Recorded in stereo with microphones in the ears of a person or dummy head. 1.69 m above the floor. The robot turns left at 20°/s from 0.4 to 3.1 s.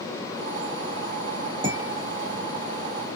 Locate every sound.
1.6 s dishes clattering: 25° right (ahead or behind), 1.5 m; by 2.4 s 10° right (ahead or behind), 1.5 m